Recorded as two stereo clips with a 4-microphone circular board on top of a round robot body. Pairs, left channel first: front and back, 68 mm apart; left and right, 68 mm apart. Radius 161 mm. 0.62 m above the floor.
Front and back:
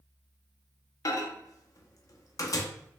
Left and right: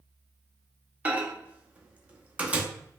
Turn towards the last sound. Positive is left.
turn(degrees=-20)